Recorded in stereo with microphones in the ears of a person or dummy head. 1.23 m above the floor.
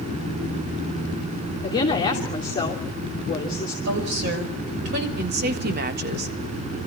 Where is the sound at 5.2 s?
50° right (ahead or behind), 1.6 m.